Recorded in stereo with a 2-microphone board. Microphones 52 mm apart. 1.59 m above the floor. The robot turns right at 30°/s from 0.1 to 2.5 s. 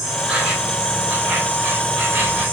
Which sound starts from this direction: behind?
An insect, at 0.0 s.